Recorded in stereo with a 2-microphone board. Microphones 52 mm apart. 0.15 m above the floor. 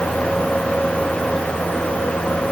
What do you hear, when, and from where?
Only background noise.